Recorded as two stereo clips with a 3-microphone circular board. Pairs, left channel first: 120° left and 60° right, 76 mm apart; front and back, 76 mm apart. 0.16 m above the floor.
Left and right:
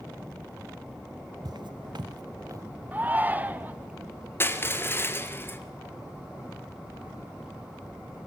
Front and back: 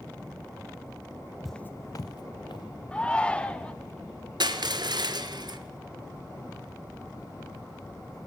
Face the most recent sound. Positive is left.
turn(degrees=180)